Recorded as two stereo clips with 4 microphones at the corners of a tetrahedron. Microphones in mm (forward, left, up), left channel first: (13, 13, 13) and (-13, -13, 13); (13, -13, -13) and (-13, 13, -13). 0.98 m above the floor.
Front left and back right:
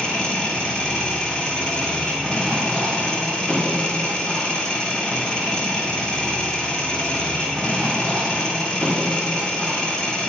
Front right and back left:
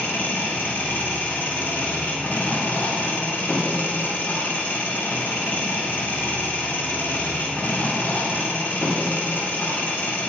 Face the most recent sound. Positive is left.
turn(degrees=-20)